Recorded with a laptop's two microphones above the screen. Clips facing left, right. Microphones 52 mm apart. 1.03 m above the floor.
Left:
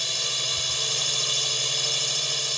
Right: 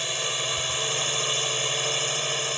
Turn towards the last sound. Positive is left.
turn(degrees=-30)  # may be behind; listen again after turning